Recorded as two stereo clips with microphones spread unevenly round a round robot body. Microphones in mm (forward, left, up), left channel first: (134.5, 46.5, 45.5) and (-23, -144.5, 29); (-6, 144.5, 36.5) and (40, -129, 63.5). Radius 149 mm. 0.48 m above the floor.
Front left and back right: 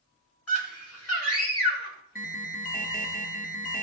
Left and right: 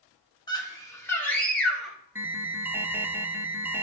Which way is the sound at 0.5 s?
25° left.